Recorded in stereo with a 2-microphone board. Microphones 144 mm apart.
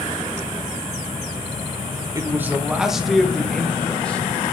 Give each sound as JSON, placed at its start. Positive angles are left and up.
{"t": 2.1, "sound": "a man speaking", "side_deg": -25, "distance_m": 0.8}